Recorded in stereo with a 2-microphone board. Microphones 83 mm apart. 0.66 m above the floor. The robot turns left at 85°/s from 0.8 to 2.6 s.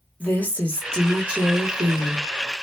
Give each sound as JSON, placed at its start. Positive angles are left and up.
{"t": 0.2, "sound": "a woman speaking", "azimuth_deg": 25, "distance_m": 1.2}